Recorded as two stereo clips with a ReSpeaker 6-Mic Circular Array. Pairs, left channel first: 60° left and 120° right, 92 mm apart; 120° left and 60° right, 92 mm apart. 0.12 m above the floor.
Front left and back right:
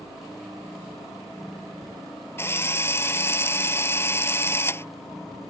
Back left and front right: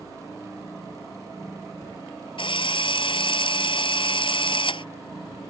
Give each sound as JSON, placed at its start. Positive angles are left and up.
{"t": 2.4, "sound": "a drill", "azimuth_deg": 120}